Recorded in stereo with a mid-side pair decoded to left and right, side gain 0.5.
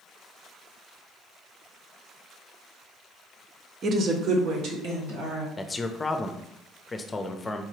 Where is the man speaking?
20° left, 0.6 m.